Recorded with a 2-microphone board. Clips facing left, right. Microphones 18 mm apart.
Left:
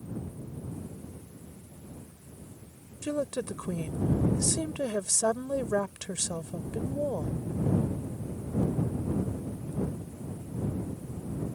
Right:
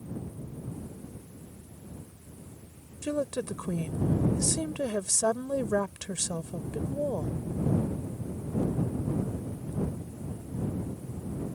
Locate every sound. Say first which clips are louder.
3.0 s a woman speaking: right 1 dB; 5° right (ahead or behind)